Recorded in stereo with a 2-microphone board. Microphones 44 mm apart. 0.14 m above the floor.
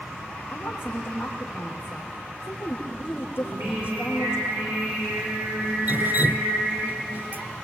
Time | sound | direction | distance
0.5 | a woman speaking | 50° left (ahead or behind) | 5.5 m
3.4 | singing | 75° right (ahead or behind) | 10 m
5.9 | dripping | 50° right (ahead or behind) | 0.6 m